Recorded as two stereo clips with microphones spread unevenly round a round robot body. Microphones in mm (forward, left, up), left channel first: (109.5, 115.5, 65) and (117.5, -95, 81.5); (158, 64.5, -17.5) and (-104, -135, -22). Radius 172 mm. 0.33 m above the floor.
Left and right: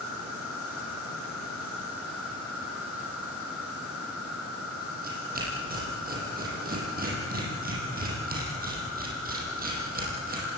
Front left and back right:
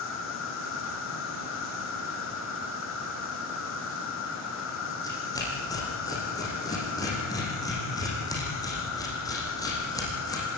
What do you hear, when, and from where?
0.0 s an insect: 95° left, 3.5 m
5.0 s tearing paper: 40° right, 7.5 m